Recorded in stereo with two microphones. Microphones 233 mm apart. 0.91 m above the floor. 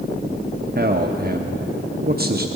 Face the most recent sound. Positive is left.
turn(degrees=-45)  # may be behind; listen again after turning